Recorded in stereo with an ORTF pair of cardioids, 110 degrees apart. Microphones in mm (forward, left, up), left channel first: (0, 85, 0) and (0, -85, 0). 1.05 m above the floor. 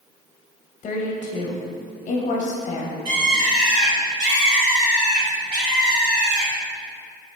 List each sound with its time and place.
0.8 s a woman speaking: 50° left, 0.8 m
3.0 s a bird: 50° right, 1.2 m